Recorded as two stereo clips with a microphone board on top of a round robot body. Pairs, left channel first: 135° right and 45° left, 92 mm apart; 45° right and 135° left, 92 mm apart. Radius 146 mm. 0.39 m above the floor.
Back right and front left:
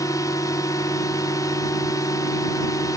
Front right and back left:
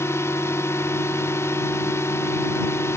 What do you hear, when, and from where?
0.0 s a drone: 95° right